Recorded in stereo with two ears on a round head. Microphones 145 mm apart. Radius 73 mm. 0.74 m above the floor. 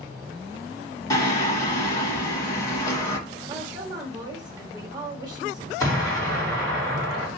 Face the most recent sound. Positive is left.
turn(degrees=20)  # may be behind; listen again after turning